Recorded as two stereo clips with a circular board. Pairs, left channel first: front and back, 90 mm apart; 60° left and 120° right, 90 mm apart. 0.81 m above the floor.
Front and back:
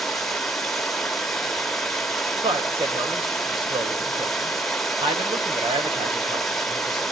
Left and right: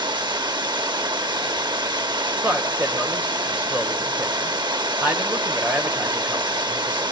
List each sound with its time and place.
0.0 s running water: 85° right, 1.3 m
2.4 s a man speaking: 170° left, 3 m